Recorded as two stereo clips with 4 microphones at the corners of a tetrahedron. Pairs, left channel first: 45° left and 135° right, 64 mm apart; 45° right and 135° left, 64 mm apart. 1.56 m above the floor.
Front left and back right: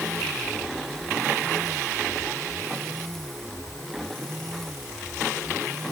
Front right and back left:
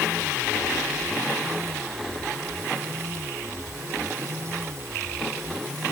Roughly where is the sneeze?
I don't hear a sneeze.